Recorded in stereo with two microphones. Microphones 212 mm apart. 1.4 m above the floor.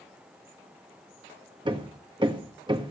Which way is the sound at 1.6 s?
20° right (ahead or behind).